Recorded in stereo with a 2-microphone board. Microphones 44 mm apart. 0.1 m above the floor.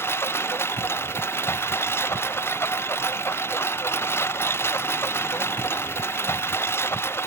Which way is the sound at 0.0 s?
65° left (ahead or behind).